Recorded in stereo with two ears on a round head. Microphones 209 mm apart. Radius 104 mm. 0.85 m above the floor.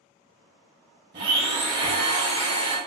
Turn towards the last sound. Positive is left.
turn(degrees=-20)  # may be behind; listen again after turning